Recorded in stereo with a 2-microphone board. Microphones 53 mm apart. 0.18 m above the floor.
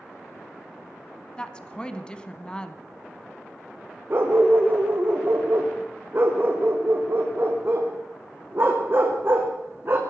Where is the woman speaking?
15° left (ahead or behind), 1.1 m.